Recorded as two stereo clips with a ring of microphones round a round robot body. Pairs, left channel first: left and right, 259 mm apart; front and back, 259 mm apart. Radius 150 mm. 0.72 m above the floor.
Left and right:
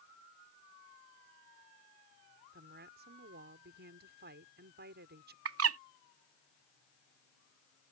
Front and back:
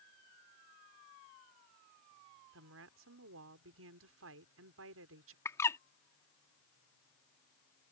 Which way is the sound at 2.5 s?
145° right.